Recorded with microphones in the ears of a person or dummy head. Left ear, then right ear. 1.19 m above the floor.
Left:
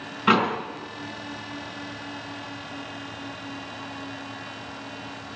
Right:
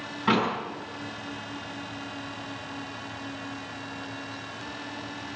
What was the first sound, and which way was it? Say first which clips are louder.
A door slam: left 4 dB; 25° left (ahead or behind).